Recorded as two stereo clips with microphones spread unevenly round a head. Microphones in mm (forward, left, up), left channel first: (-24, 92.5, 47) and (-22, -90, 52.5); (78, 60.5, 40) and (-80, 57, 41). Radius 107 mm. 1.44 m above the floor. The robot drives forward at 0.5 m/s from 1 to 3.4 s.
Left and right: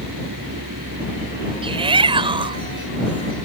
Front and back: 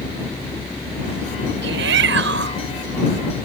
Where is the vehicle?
80° right; by 3.5 s 85° right.